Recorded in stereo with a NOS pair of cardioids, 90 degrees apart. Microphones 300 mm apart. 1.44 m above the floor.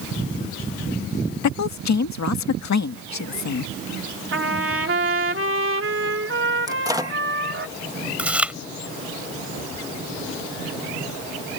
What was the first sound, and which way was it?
A woman speaking, 70° left.